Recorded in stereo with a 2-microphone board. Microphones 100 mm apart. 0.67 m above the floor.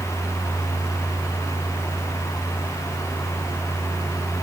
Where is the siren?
No siren in this recording.